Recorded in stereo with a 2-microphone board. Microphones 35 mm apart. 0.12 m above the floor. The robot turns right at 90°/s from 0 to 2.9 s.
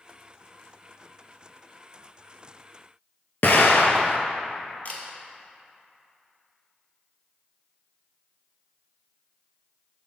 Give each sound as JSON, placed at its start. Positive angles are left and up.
{"t": 3.4, "sound": "an explosion", "side_deg": 65, "distance_m": 0.6}
{"t": 4.8, "sound": "a camera shutter", "side_deg": 50, "distance_m": 0.9}